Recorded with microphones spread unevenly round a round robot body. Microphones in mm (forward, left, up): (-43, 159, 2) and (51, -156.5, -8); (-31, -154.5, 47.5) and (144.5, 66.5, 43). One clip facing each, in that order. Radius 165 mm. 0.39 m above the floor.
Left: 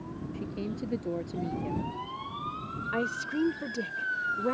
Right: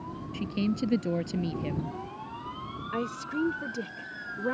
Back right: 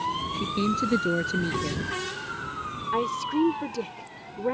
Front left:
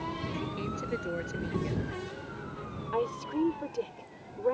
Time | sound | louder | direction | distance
0.3 | a woman speaking | right 7 dB, back right 13 dB | 100° right | ?
2.9 | a woman speaking | left 1 dB, back right 4 dB | 160° right | ?